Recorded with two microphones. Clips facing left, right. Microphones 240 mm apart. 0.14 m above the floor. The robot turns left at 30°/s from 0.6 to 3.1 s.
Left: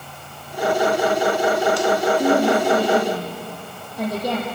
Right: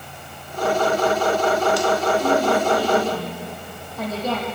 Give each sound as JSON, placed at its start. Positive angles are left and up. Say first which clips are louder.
{"t": 2.2, "sound": "a woman speaking", "louder": "left 3 dB", "side_deg": 40, "distance_m": 4.0}